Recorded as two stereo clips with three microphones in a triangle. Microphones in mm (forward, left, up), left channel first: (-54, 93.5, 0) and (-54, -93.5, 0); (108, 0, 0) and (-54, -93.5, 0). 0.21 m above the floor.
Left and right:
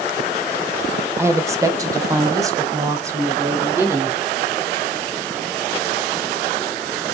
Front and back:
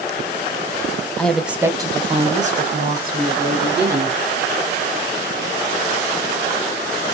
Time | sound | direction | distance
1.2 | a woman speaking | 40° right | 1.0 m